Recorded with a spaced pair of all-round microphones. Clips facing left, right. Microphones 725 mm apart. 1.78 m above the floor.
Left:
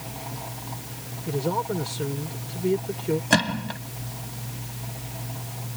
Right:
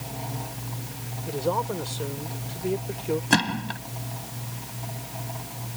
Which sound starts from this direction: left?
A man speaking, at 1.3 s.